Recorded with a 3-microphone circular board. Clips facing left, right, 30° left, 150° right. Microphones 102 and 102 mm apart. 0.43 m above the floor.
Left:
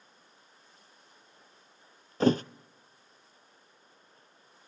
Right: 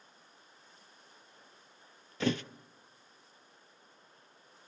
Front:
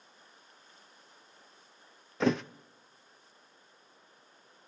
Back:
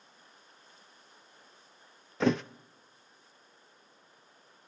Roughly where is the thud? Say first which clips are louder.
Left 8 dB, back 1 dB; behind left.